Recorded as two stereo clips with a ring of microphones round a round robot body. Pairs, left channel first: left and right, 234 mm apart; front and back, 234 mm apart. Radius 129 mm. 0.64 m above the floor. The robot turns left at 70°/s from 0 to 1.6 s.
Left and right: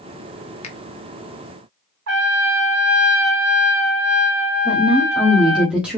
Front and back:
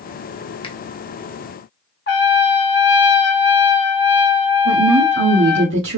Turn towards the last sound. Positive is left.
turn(degrees=-175)